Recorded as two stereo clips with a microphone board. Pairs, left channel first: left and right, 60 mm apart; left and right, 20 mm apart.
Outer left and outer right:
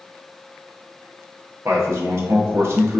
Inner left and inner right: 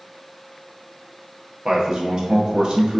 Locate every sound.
1.6 s a man speaking: 45° right (ahead or behind), 0.9 m